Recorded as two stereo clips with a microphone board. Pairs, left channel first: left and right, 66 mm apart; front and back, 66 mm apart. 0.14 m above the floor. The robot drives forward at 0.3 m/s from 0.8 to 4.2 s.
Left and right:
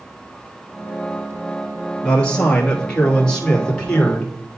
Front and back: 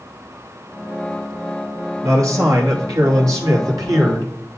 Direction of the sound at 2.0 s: 160° left.